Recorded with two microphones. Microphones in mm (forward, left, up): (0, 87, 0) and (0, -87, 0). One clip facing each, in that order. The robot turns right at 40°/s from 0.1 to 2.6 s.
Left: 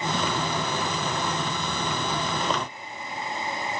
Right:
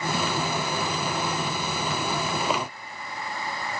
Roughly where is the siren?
I don't hear a siren.